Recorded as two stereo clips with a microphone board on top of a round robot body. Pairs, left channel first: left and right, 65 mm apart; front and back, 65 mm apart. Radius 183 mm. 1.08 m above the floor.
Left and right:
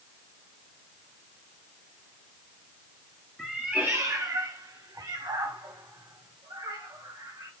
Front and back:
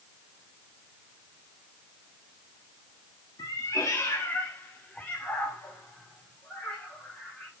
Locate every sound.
3.4 s a cat meowing: 10° left, 0.6 m; by 7.5 s 80° right, 3 m